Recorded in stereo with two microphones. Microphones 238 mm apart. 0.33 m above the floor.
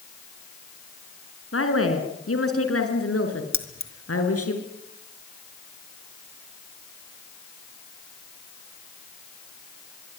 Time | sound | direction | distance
1.5 | a woman speaking | 65° left (ahead or behind) | 4.5 m
3.5 | keys jangling | 60° left (ahead or behind) | 2.5 m